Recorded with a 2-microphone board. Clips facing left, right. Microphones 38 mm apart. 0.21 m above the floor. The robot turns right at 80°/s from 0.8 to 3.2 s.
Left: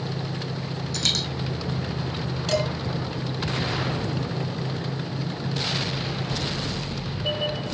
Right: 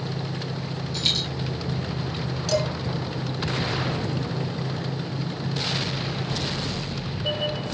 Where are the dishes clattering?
35° left (ahead or behind), 1.9 m; by 2.7 s 45° left (ahead or behind), 1.9 m.